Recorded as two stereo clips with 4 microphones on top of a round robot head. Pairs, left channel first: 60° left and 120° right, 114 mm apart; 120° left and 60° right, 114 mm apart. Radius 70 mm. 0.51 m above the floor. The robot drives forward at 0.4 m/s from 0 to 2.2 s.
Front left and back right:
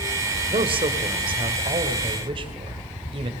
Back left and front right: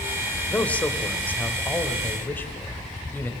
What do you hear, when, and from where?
0.5 s a man speaking: 160° right, 2.5 m; by 3.3 s 165° right, 3 m